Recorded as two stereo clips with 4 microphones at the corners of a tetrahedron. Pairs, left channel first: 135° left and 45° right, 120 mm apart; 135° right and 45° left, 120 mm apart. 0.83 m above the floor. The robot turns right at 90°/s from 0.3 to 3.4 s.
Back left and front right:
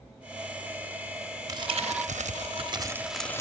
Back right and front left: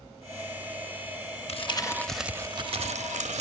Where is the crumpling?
105° right, 0.7 m; by 3.4 s 65° left, 0.7 m.